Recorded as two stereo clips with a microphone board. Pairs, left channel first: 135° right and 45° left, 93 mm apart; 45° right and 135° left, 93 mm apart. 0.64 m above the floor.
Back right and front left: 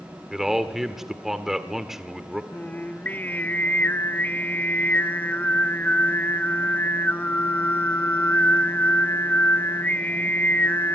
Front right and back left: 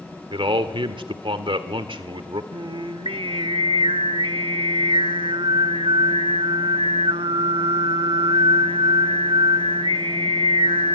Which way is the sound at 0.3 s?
130° left.